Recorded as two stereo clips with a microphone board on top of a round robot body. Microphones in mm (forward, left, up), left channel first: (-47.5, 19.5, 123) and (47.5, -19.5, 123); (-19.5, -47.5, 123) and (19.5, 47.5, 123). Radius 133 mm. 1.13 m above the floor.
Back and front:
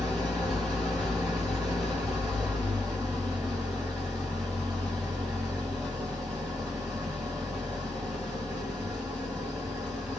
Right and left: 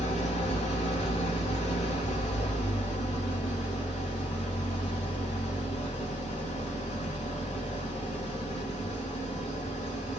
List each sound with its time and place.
0.0 s an engine running: 110° right, 1.9 m